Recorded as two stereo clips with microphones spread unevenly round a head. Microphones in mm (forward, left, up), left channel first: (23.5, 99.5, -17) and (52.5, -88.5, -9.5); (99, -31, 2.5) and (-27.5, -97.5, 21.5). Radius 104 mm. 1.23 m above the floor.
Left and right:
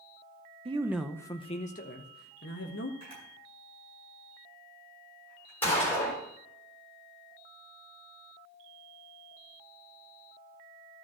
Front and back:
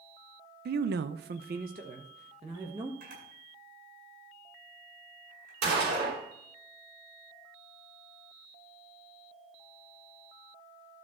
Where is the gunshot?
Straight behind, 3.5 m.